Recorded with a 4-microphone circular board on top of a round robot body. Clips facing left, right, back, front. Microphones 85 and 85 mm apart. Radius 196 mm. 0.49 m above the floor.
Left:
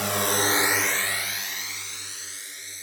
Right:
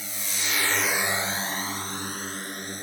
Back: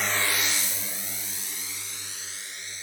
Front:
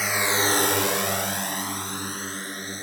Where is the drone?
85° left; by 2.9 s 50° right.